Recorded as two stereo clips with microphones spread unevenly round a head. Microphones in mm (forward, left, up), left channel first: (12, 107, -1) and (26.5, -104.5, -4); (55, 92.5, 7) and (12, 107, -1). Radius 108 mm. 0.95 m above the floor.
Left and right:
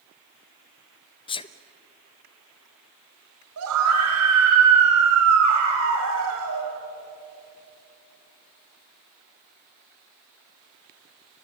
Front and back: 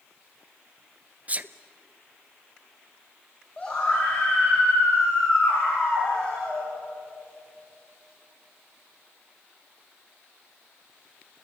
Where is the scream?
105° right, 5 m.